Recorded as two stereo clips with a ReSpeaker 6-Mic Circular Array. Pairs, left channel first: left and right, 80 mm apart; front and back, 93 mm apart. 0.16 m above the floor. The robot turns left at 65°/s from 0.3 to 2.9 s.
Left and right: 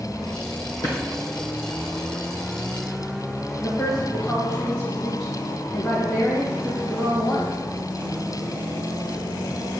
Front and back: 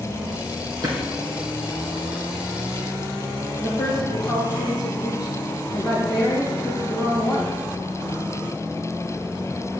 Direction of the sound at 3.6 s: 10° left.